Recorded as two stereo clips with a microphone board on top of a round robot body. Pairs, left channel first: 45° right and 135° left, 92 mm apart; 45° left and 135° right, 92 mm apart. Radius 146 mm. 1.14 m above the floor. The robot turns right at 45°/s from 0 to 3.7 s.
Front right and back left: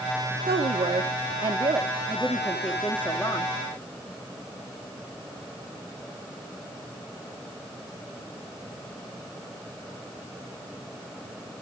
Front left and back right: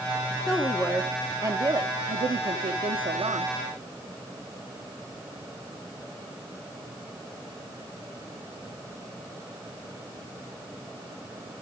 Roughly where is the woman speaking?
Behind left.